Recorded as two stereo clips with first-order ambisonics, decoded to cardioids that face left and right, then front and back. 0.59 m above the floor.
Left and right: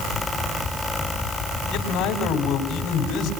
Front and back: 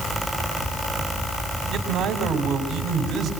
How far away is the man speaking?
About 3 m.